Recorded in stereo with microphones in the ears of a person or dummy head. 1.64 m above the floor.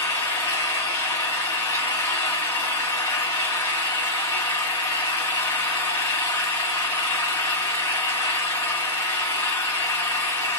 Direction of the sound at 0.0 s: 10° left (ahead or behind).